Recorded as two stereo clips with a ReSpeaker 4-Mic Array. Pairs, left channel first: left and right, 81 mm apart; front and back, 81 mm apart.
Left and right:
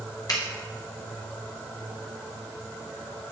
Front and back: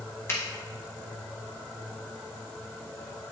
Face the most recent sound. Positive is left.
turn(degrees=55)